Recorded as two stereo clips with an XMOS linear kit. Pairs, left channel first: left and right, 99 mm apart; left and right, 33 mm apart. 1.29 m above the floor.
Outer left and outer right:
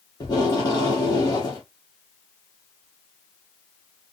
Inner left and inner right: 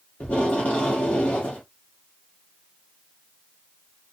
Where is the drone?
No drone in this recording.